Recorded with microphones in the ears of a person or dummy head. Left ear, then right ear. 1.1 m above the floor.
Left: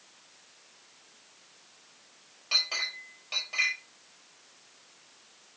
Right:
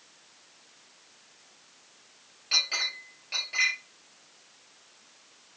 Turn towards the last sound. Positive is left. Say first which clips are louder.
# right 2 dB
turn(degrees=30)  # may be behind; listen again after turning